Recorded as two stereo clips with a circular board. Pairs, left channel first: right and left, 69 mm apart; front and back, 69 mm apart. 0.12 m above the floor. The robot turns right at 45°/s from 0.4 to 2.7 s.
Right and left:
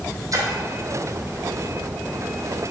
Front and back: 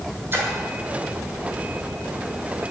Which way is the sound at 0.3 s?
125° left.